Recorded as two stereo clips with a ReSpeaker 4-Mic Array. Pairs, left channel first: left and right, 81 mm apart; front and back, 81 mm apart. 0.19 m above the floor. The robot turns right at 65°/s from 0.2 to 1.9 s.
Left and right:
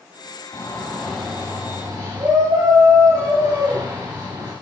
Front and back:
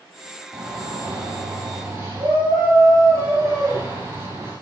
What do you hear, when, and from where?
0.5 s a shout: 145° left, 4 m; by 4.5 s 130° right, 4 m